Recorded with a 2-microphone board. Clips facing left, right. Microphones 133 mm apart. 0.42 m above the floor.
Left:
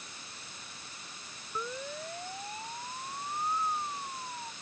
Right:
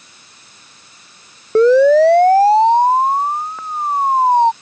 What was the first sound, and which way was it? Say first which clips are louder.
A siren: right 31 dB; 85° right.